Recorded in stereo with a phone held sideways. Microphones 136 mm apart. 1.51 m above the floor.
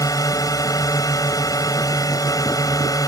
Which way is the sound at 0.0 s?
25° left (ahead or behind).